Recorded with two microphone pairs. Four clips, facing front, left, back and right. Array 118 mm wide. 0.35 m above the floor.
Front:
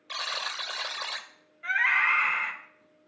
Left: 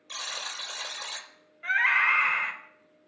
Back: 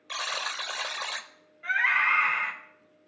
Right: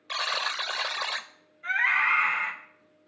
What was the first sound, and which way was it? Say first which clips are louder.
A buzzer: right 9 dB, back 2 dB; 100° right.